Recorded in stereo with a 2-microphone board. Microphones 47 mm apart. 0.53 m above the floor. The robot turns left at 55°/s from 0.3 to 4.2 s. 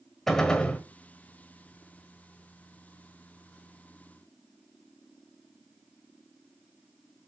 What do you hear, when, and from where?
0.3 s a gunshot: 5° left (ahead or behind), 1.7 m; by 0.8 s 30° left (ahead or behind), 1.7 m